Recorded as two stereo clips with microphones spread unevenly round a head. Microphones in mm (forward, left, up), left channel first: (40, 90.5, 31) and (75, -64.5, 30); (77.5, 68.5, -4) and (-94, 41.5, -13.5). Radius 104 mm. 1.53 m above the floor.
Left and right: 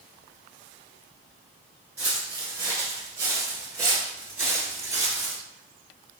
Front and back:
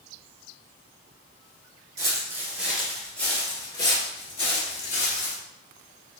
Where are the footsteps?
135° right, 1.5 m; by 5.4 s 10° right, 2 m.